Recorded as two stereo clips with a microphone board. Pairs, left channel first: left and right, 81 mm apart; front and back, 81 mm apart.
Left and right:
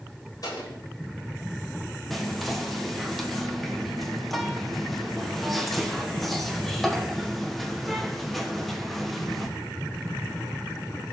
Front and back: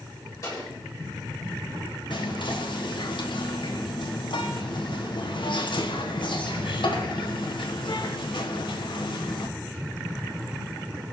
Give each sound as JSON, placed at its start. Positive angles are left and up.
{"t": 0.4, "sound": "an explosion", "azimuth_deg": 45, "distance_m": 7.0}
{"t": 2.1, "sound": "whispering", "azimuth_deg": 0, "distance_m": 1.2}